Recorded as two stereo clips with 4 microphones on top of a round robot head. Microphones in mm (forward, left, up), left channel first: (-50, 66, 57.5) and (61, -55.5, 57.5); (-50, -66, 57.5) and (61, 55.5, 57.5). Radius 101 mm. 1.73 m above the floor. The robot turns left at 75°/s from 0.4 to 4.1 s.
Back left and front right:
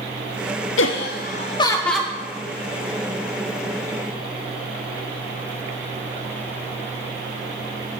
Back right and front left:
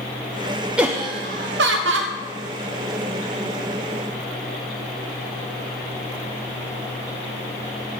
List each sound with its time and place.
0.8 s laughter: 130° left, 0.5 m; by 2.1 s 30° left, 0.5 m